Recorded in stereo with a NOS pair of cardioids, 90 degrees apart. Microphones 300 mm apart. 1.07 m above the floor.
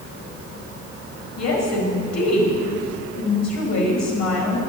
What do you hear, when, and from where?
1.4 s a woman speaking: 65° left, 5 m